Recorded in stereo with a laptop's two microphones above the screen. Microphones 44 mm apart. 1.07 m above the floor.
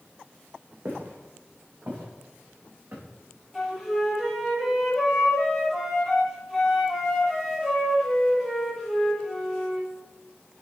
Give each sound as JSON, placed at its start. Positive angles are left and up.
{"t": 0.8, "sound": "footsteps", "side_deg": -50, "distance_m": 4.5}
{"t": 3.5, "sound": "a flute", "side_deg": -10, "distance_m": 6.0}